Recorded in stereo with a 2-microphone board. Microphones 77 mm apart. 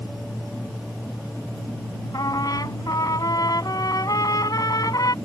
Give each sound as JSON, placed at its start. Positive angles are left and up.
{"t": 2.1, "sound": "a trumpet", "side_deg": 55}